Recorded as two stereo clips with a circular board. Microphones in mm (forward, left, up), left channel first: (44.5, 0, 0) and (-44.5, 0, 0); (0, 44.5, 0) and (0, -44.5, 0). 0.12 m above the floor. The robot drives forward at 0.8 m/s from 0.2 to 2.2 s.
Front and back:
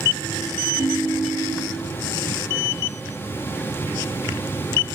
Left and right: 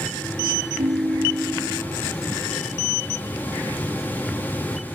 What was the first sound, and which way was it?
A ringtone, 60° right.